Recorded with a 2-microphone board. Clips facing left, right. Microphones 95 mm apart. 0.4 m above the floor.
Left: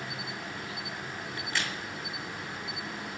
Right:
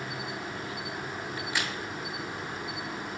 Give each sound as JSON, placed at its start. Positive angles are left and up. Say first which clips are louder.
{"t": 0.0, "sound": "an insect", "louder": "right 3 dB", "side_deg": -35, "distance_m": 1.3}
{"t": 1.4, "sound": "a crack", "louder": "right 1 dB", "side_deg": -10, "distance_m": 2.0}